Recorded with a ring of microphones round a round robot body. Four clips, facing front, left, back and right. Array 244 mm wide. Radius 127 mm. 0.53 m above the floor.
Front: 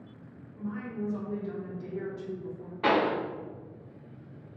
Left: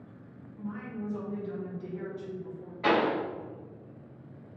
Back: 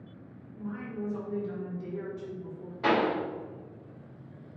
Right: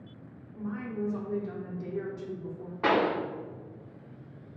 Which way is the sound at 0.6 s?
90° right.